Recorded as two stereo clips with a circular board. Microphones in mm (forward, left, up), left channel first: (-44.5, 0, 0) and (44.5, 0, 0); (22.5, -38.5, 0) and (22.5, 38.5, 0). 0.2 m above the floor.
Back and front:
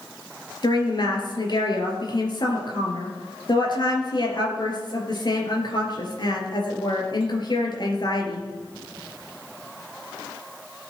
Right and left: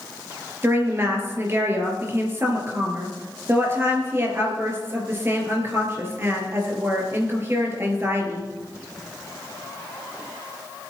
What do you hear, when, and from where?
0.6 s a woman speaking: 150° left, 4 m